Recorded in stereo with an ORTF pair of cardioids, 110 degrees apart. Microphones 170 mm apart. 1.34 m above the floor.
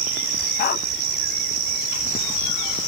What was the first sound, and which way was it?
A dog barking, 65° left.